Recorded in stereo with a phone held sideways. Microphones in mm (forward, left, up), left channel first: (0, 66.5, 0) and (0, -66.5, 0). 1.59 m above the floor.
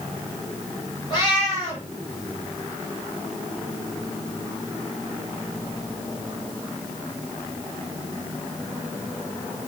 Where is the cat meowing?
35° left (ahead or behind), 3.5 m.